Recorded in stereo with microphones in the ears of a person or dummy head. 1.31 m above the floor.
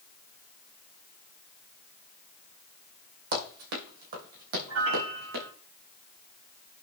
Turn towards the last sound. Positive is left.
turn(degrees=-75)  # may be behind; listen again after turning